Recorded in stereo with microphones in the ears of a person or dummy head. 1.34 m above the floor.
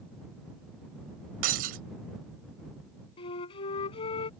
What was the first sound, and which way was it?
Breaking glass, 55° right (ahead or behind).